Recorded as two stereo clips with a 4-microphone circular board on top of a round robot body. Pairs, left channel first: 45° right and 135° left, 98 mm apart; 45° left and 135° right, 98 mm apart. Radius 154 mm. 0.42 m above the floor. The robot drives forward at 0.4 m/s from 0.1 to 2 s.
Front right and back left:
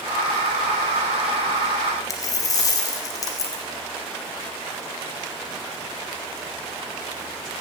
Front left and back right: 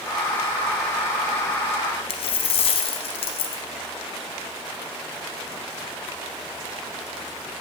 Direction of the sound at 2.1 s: 15° left.